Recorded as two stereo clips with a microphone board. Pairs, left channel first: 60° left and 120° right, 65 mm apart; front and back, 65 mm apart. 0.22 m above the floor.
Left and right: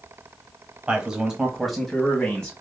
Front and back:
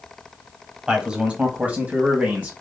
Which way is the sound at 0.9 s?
130° right.